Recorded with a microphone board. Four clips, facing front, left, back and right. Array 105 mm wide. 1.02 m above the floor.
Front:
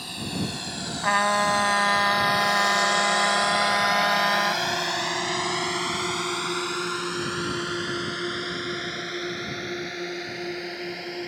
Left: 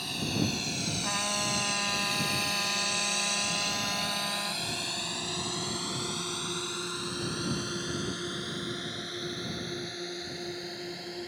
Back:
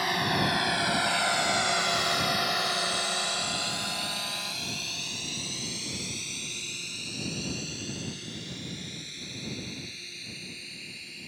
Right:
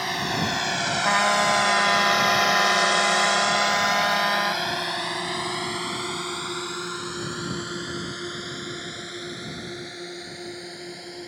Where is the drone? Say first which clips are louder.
Right 6 dB, back 5 dB; 130° right; by 11.3 s 5° right.